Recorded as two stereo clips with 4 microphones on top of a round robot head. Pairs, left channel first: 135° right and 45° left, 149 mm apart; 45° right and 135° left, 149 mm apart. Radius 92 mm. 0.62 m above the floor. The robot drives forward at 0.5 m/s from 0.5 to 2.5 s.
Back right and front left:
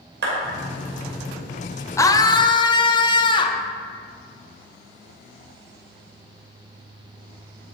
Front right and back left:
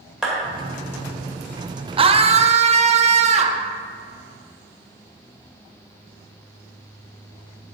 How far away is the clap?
About 2.5 m.